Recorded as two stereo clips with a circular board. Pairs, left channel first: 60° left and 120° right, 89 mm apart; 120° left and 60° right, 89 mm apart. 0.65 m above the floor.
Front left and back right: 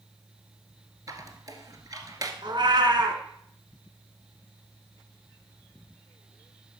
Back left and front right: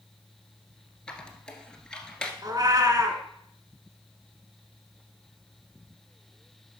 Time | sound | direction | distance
1.1 | a squeak | 160° right | 1.2 m
2.4 | a cat meowing | 100° right | 1.3 m